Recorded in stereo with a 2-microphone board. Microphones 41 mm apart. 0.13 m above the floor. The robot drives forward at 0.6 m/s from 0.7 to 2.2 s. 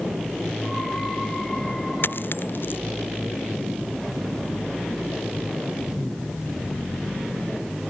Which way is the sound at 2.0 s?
55° left (ahead or behind).